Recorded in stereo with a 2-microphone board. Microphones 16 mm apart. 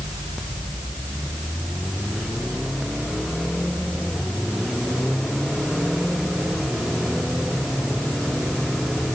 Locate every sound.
Only background noise.